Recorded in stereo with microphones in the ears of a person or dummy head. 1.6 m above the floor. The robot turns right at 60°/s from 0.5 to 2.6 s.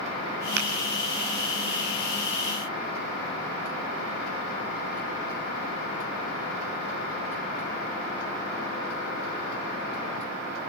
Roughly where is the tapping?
Right.